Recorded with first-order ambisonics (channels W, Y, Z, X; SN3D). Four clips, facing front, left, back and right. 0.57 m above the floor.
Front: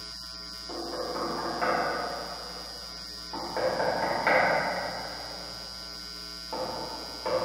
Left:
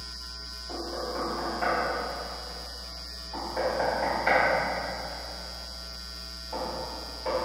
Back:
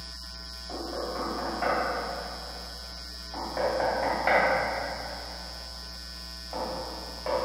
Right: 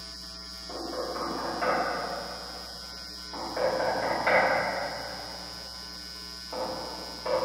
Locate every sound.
0.7 s knocking: 10° right, 1.4 m